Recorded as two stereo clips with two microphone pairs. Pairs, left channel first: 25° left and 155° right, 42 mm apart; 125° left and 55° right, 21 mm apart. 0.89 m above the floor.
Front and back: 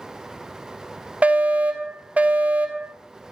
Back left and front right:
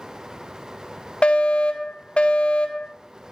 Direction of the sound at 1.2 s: 155° left.